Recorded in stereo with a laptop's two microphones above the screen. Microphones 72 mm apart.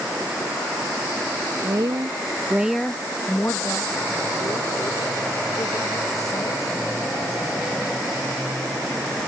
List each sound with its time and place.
1.6 s a woman speaking: 70° right (ahead or behind); by 7.5 s 55° left (ahead or behind)